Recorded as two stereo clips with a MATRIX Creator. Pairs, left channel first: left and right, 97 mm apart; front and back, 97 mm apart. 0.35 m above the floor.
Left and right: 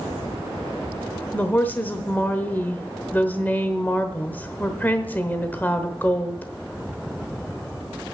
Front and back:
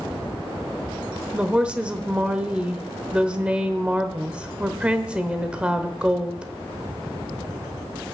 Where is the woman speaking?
120° left, 0.9 m.